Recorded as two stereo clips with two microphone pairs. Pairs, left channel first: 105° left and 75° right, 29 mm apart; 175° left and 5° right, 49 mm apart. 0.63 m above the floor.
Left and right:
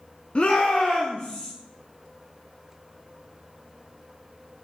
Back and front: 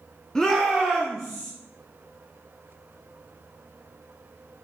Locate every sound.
0.3 s a shout: 105° left, 0.7 m; by 1.5 s 80° left, 2.0 m